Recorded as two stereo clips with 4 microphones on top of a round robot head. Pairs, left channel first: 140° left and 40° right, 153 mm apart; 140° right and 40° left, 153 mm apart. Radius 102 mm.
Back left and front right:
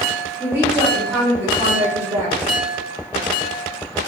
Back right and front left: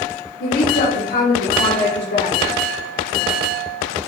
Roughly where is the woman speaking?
Behind right.